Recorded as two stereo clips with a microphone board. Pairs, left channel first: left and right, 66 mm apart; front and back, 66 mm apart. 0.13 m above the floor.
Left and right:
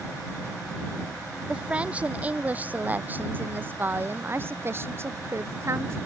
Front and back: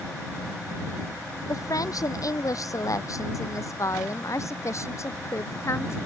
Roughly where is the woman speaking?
Ahead.